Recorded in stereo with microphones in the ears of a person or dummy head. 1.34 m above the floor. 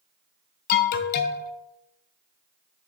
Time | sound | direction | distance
0.7 | an alarm | 50° left (ahead or behind) | 0.6 m